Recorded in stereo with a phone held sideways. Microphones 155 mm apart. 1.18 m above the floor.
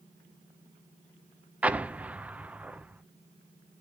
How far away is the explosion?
About 0.5 m.